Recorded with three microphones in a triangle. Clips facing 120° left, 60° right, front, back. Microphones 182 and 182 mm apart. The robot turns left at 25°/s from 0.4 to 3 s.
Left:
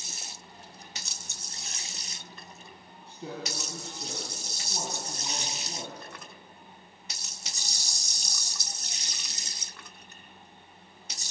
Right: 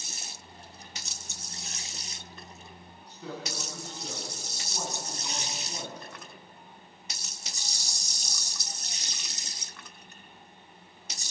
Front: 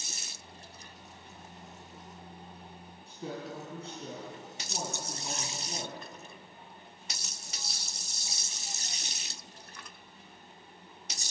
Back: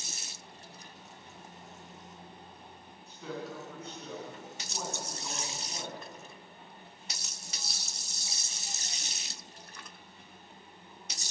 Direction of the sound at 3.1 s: 60° left.